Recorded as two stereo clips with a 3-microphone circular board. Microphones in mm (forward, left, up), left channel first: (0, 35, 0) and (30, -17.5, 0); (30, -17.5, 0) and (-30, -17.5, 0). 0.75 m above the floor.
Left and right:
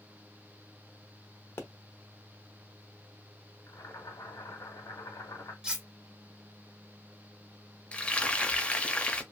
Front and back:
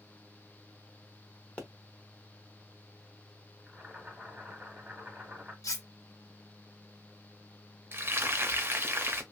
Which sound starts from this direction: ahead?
Cutlery clinking, at 5.6 s.